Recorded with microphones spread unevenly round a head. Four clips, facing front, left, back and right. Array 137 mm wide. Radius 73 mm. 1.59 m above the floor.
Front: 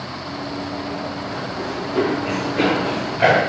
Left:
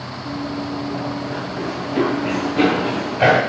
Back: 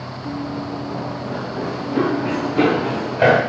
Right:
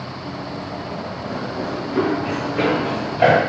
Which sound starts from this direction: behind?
Running footsteps, at 0.2 s.